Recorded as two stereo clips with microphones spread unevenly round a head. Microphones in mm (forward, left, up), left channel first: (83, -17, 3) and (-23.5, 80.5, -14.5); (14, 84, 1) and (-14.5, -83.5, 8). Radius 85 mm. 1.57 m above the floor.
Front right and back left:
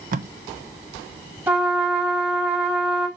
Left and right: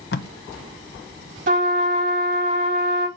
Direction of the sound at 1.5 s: 140° right.